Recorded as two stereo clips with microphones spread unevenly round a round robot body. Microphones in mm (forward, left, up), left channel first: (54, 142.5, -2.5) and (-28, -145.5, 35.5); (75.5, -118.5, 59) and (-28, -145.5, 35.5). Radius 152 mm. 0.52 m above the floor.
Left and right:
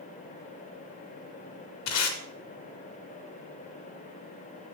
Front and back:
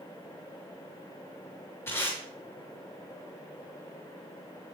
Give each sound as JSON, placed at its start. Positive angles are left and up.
{"t": 1.9, "sound": "tape being pulled", "azimuth_deg": 95, "distance_m": 1.8}